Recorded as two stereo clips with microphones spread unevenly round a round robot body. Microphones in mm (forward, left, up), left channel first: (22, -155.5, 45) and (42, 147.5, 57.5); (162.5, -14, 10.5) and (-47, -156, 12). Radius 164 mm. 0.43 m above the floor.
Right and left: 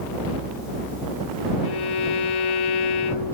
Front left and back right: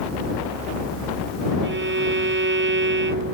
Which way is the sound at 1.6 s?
100° right.